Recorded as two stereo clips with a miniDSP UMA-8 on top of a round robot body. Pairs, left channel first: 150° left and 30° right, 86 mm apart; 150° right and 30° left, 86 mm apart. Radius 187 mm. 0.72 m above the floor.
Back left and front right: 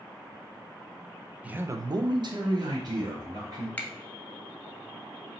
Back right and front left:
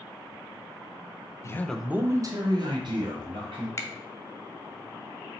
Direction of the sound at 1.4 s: 100° right.